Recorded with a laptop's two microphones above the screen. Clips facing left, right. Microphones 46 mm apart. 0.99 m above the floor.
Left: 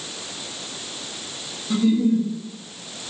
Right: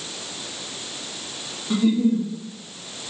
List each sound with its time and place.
1.7 s a giggle: 30° right (ahead or behind), 1.5 m